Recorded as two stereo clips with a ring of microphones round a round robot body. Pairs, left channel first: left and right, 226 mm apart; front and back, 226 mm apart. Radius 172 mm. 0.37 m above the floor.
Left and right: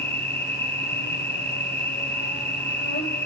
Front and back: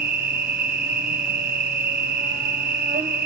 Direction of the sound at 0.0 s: 130° left.